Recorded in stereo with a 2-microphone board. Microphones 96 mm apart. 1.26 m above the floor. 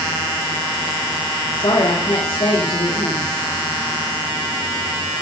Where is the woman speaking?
65° left (ahead or behind), 2.5 m.